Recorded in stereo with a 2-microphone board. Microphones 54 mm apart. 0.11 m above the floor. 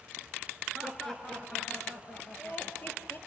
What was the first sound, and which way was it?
Laughter, centre (ahead or behind).